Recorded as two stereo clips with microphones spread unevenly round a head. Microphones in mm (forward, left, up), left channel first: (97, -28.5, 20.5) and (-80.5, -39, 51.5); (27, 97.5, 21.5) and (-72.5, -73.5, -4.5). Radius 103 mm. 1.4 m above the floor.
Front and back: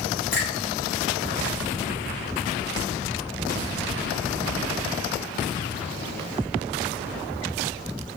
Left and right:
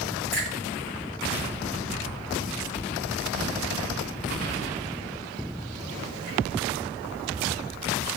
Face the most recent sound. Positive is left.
turn(degrees=-20)